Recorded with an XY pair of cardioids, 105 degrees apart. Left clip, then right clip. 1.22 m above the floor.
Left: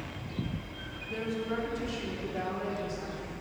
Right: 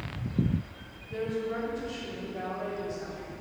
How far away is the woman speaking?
About 2.5 m.